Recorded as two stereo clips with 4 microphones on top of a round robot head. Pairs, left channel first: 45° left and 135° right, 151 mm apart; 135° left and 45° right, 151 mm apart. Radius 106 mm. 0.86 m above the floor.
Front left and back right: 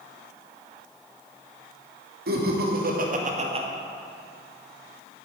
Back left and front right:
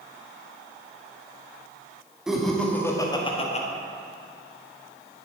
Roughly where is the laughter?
Behind right.